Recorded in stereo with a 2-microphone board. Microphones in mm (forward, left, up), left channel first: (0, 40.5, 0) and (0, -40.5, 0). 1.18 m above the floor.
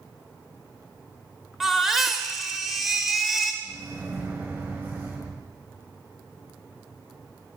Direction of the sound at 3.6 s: 25° right (ahead or behind).